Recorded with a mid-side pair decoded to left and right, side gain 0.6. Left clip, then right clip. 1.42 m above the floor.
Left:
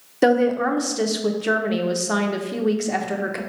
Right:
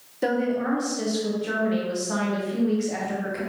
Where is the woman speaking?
45° left, 0.8 m.